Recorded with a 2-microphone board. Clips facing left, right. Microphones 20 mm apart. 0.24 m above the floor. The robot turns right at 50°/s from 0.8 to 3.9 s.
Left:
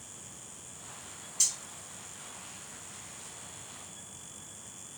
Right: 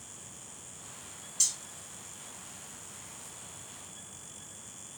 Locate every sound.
1.4 s cutlery clinking: 5° right (ahead or behind), 1.1 m; by 1.6 s centre (ahead or behind), 1.1 m